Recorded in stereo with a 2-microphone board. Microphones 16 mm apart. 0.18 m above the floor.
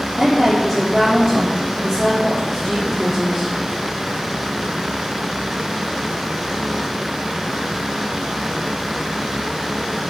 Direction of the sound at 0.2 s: 25° right (ahead or behind).